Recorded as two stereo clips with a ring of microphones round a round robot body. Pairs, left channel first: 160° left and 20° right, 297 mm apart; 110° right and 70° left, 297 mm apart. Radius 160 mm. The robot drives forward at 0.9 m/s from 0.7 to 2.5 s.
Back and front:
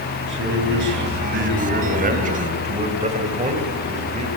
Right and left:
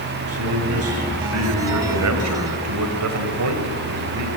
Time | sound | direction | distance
0.2 | a man speaking | 30° left | 4.5 m